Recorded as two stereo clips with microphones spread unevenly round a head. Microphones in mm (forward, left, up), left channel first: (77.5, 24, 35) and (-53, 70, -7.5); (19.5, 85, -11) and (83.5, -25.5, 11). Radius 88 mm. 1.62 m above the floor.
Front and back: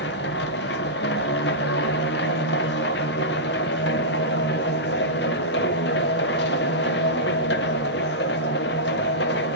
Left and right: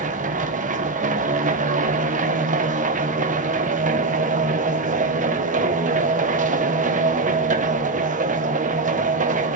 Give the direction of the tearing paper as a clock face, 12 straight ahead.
No tearing paper in this recording.